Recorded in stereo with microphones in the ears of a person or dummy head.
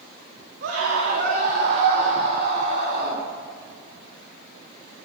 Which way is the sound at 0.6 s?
55° right (ahead or behind).